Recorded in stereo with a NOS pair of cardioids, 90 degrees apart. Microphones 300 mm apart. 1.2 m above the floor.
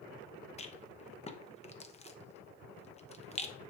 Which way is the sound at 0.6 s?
20° left.